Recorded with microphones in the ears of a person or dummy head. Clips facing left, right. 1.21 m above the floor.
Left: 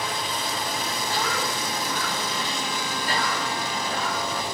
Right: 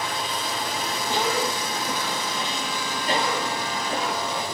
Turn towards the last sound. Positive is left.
turn(degrees=-20)  # may be behind; listen again after turning